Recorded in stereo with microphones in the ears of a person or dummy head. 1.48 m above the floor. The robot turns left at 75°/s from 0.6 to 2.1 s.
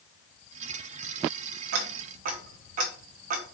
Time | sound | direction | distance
1.7 | ticking | 60° right (ahead or behind) | 0.7 m